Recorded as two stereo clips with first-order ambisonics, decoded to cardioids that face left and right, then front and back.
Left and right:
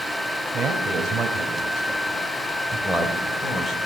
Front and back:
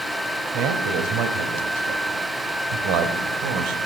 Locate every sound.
0.5 s a man speaking: 165° right, 3.5 m; by 3.9 s 160° left, 3.5 m